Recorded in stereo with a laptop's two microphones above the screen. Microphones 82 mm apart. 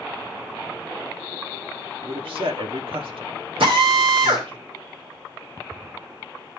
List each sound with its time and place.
2.0 s a man speaking: 85° right, 1.9 m
3.6 s a drill: 80° right, 2.5 m